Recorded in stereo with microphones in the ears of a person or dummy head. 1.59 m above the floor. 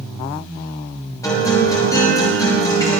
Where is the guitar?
25° left (ahead or behind), 6 m.